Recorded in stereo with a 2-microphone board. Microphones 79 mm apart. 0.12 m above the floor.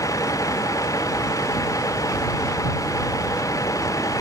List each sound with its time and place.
0.0 s a vehicle: 45° left (ahead or behind)